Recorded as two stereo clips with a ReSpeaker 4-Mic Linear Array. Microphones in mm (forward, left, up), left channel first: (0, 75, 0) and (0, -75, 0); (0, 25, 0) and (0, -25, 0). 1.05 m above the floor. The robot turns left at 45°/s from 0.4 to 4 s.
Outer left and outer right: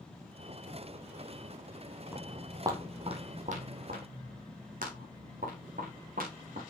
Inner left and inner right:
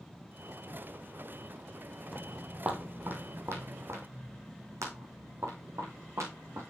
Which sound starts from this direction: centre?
Footsteps, at 2.1 s.